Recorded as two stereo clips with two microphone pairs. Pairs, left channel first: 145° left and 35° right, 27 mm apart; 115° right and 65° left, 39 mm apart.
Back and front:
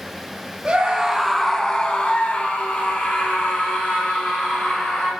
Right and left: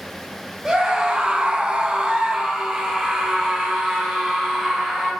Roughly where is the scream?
Ahead.